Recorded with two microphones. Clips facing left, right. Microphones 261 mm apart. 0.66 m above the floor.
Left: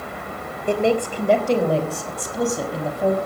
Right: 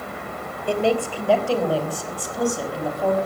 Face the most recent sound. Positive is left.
turn(degrees=25)  # may be behind; listen again after turning